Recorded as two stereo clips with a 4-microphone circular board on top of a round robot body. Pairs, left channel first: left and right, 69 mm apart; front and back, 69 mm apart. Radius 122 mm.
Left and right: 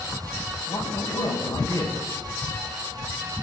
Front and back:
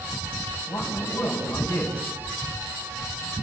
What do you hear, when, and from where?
0.7 s a man speaking: 65° left, 5.5 m